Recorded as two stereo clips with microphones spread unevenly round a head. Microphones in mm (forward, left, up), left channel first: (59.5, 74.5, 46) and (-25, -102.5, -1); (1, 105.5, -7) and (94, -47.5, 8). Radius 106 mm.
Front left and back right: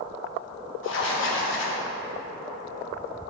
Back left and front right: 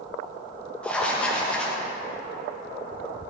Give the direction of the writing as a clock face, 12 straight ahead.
11 o'clock.